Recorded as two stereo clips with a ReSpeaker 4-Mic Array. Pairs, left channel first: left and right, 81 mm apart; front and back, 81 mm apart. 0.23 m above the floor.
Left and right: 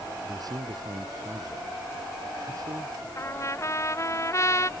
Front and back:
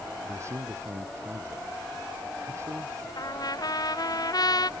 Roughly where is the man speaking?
Behind right.